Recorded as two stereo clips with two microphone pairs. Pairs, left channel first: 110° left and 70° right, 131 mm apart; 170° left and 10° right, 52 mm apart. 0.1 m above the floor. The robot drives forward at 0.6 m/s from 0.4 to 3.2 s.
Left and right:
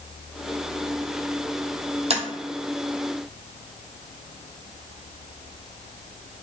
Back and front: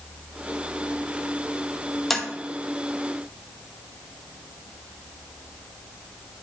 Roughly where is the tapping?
Right.